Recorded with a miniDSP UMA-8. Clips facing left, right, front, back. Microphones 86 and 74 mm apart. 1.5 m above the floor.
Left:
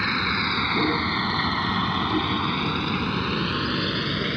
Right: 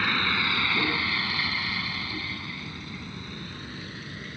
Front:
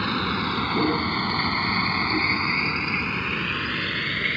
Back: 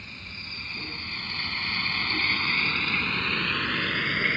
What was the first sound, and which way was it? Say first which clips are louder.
A vehicle: left 2 dB, front 19 dB; 10° left.